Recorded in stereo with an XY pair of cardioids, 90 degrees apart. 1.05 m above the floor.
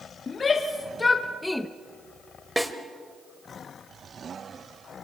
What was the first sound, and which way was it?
A shout, 45° left.